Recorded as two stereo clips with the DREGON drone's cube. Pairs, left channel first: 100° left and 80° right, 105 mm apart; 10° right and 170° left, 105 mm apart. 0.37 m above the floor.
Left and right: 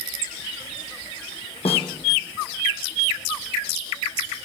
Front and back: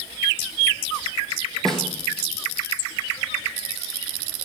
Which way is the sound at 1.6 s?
75° left.